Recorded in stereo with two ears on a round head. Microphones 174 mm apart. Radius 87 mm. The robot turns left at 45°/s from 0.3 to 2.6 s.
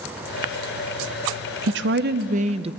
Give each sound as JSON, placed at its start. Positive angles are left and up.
{"t": 1.7, "sound": "a woman speaking", "azimuth_deg": -105, "distance_m": 0.5}